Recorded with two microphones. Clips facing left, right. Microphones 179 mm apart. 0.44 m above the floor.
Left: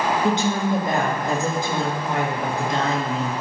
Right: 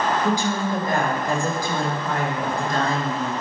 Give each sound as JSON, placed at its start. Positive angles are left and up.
{"t": 0.2, "sound": "a woman speaking", "side_deg": 25, "distance_m": 6.0}